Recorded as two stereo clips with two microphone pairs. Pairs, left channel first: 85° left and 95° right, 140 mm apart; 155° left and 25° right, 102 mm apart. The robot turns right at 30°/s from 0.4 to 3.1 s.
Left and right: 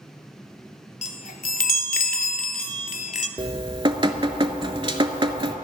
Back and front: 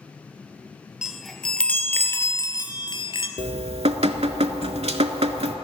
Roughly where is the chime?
Ahead left.